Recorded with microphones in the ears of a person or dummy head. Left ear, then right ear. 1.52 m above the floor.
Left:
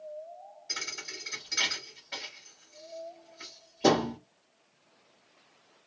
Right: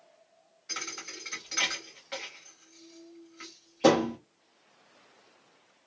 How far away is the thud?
About 1.2 m.